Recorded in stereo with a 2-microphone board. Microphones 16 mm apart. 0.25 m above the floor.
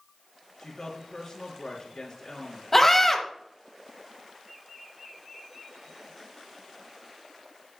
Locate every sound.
0.6 s a woman speaking: 45° left (ahead or behind), 3 m
2.7 s a scream: 25° left (ahead or behind), 1.2 m